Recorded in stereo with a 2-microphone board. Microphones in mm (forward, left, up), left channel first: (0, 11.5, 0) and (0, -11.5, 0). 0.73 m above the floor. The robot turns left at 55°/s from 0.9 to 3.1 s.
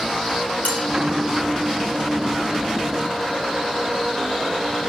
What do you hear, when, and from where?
0.7 s dishes clattering: 85° left, 3.5 m